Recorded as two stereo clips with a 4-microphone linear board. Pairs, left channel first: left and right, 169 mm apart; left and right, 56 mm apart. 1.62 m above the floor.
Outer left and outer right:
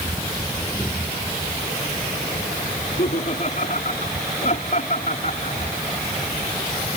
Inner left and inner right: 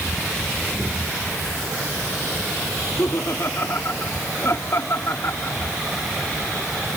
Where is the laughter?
50° left (ahead or behind).